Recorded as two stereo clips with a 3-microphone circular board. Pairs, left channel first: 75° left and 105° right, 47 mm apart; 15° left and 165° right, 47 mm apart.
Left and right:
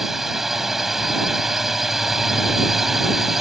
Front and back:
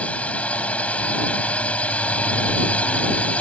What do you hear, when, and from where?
0.0 s a drone: 25° right